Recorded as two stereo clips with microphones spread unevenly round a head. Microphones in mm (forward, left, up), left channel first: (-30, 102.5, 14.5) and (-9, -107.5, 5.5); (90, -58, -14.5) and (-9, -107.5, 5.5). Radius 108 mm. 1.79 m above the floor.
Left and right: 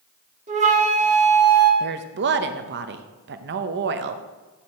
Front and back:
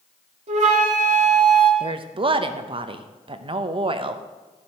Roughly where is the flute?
Behind right.